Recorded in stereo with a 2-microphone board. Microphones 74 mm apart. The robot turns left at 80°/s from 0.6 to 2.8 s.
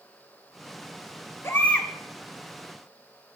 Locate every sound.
1.4 s a baby crying: 45° left, 0.8 m; by 1.9 s 5° left, 0.8 m